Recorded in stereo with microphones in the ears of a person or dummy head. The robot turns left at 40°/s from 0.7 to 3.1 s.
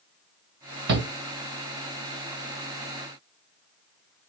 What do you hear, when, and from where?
0.9 s a shout: 50° right (ahead or behind), 0.8 m; by 1.1 s 45° right (ahead or behind), 0.8 m